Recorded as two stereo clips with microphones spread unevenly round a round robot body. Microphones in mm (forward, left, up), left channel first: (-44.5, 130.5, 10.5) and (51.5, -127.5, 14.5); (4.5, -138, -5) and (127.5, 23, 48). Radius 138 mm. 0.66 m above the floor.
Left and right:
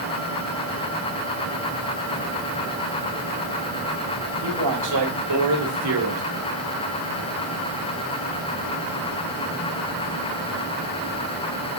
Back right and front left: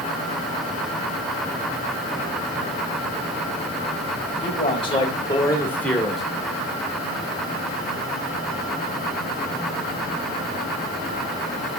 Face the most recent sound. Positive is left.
turn(degrees=-40)